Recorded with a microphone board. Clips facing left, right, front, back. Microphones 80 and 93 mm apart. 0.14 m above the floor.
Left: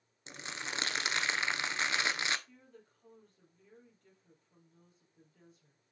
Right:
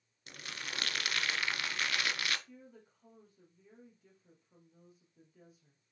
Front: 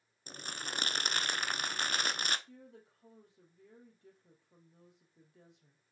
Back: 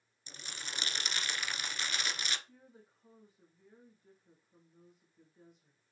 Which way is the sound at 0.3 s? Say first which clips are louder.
Left 3 dB, front 4 dB; 30° left.